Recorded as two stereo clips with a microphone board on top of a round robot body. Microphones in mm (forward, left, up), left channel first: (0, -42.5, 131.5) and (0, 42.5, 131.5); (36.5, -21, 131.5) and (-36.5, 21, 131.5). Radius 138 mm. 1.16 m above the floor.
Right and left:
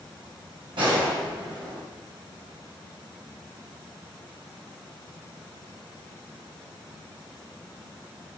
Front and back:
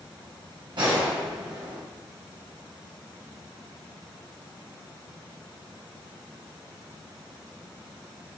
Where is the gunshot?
115° left, 1.9 m.